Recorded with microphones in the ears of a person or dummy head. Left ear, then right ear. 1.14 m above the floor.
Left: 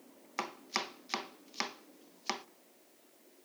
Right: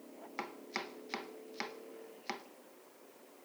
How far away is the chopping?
About 0.6 m.